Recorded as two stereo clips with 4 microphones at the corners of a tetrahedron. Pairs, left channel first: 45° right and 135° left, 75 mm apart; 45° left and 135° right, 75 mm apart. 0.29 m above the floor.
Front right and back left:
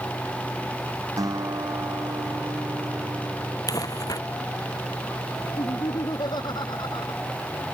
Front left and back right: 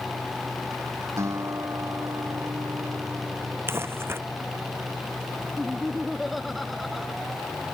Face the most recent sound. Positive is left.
turn(degrees=-45)